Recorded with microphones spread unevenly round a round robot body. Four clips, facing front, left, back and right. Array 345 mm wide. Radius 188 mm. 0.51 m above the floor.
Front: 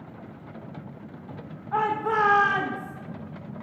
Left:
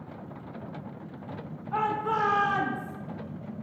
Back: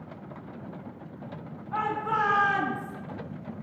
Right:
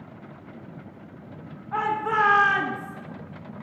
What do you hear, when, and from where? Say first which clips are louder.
1.7 s a shout: right 3 dB, front 4 dB; 10° right, 1.6 m; by 3.0 s 160° right, 1.0 m